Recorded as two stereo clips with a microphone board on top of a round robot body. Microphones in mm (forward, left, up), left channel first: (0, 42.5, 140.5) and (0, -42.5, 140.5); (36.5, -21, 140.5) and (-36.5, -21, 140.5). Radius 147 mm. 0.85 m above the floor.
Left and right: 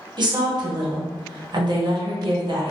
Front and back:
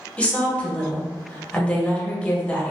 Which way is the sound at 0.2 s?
75° right.